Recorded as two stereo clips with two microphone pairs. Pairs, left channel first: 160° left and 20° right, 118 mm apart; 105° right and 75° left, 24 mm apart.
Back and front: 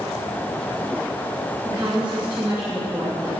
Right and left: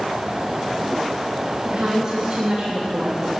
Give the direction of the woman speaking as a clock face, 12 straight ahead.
10 o'clock.